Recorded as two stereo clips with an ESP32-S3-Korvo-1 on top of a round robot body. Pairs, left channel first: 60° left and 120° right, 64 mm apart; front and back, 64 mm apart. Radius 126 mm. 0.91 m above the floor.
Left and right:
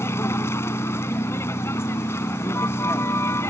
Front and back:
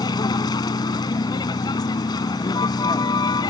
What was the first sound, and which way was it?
A vehicle, 5° left.